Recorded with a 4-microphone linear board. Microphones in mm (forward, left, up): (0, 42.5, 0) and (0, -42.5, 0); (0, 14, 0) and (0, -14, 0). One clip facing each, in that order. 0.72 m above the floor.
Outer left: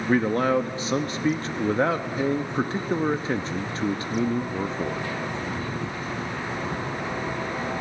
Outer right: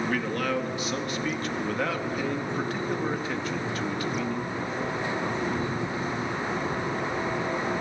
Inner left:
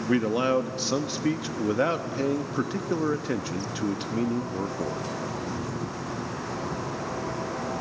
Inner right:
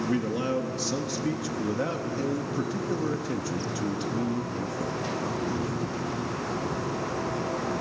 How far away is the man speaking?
About 0.8 m.